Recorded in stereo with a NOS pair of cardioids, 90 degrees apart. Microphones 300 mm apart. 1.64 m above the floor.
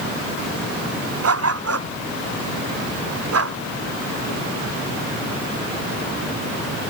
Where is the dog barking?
55° right.